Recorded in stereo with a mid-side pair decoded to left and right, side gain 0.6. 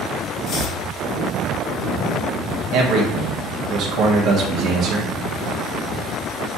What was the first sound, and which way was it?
Chopping, 65° left.